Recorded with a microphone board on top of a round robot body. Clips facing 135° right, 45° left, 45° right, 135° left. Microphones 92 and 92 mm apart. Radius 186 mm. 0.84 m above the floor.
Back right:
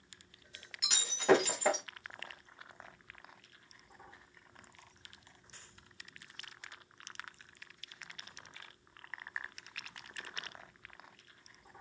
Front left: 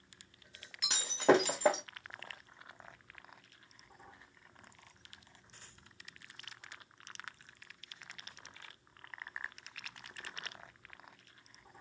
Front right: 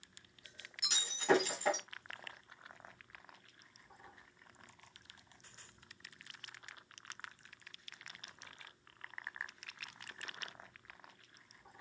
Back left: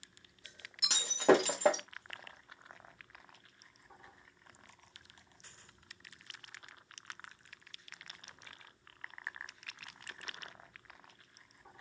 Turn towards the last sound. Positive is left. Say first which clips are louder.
# front left 2 dB, back left 6 dB
turn(degrees=100)